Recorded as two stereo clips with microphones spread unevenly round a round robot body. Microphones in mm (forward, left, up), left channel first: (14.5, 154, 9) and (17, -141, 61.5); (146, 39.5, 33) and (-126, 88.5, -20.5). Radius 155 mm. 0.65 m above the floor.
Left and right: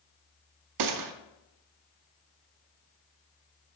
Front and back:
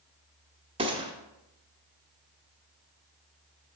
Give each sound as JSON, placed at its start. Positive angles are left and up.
{"t": 0.8, "sound": "a gunshot", "azimuth_deg": -120, "distance_m": 0.6}